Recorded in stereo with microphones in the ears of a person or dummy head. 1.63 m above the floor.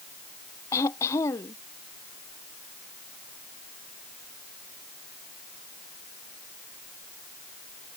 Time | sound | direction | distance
0.7 | throat clearing | 20° left (ahead or behind) | ?